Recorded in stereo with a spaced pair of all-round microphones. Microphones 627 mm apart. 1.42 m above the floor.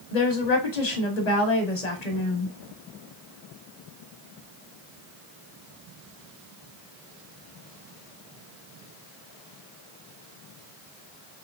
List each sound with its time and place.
0.1 s a woman speaking: 85° left, 1.2 m